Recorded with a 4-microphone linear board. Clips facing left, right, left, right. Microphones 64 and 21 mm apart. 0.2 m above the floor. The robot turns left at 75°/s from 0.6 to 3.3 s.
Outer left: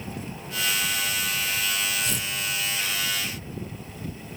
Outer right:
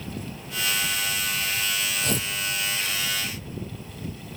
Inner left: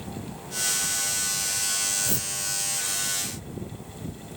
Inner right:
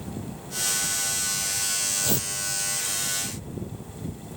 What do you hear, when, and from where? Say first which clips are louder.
2.0 s tearing paper: outer right 3 dB, inner right 2 dB; 55° right (ahead or behind), 1.2 m; by 2.3 s 35° right (ahead or behind), 1.2 m